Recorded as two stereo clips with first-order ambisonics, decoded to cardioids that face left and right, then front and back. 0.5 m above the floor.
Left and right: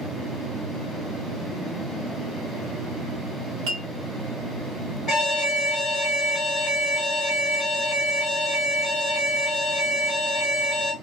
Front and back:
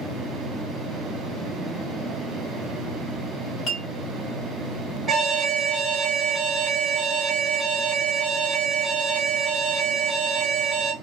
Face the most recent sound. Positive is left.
turn(degrees=120)